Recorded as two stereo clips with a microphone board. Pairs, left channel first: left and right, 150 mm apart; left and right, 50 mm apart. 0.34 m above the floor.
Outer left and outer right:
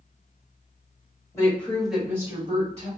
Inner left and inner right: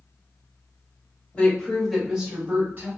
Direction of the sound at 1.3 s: 20° left (ahead or behind).